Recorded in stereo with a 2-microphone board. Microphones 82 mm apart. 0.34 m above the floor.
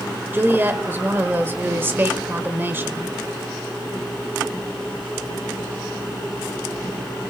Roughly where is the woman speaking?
Right.